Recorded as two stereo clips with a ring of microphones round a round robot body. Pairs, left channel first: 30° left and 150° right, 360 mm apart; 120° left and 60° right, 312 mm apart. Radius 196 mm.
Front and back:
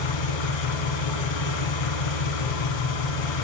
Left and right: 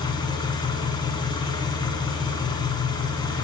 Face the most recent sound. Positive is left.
turn(degrees=45)